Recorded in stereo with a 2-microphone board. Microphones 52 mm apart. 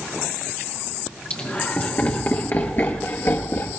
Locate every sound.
1.3 s laughter: 30° left (ahead or behind), 3.5 m; by 3.8 s 65° left (ahead or behind), 2.5 m